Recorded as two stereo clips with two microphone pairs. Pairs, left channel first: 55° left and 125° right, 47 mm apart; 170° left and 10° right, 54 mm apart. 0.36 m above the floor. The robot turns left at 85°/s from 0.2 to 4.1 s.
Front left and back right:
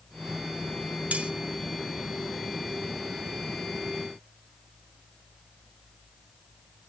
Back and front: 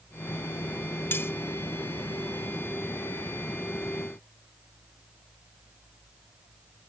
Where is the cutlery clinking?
165° right, 0.8 m; by 1.3 s 175° left, 0.8 m.